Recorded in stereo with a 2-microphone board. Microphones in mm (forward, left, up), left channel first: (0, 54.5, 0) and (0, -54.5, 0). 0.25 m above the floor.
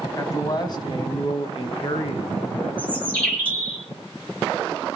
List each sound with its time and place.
0.2 s a man speaking: 35° left (ahead or behind), 2 m; by 2.7 s 60° left (ahead or behind), 3.5 m
2.8 s a bird: 10° left (ahead or behind), 5.5 m